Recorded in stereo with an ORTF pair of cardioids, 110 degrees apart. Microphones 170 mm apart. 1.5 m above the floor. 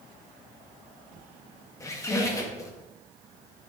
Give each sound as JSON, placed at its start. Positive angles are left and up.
{"t": 1.8, "sound": "a squeak", "azimuth_deg": 20, "distance_m": 1.7}